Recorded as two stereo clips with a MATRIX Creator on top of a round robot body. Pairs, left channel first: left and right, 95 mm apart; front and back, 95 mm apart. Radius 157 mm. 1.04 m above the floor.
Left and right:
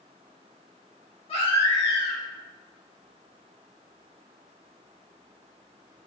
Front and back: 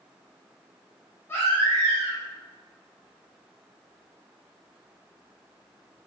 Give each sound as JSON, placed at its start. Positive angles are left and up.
{"t": 1.3, "sound": "a baby crying", "azimuth_deg": 70, "distance_m": 0.8}